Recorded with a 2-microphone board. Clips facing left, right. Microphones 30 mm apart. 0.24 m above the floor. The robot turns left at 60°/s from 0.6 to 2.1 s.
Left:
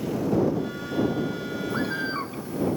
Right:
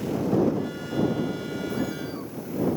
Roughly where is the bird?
Left.